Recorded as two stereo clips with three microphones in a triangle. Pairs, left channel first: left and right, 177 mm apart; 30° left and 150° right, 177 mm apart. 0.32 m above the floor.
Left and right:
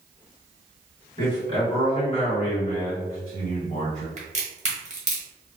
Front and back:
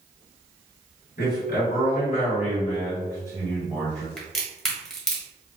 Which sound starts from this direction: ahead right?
A crack, at 4.2 s.